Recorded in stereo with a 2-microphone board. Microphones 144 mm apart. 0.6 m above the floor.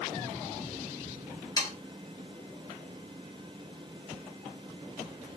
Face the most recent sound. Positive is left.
turn(degrees=25)  # may be behind; listen again after turning